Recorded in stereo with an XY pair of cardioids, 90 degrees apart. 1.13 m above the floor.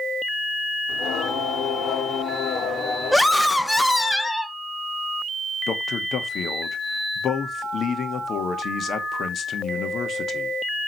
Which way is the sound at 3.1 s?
10° left.